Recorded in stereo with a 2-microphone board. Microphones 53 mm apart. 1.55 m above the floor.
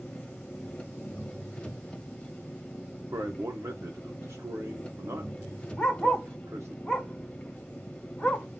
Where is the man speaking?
75° right (ahead or behind), 0.9 m.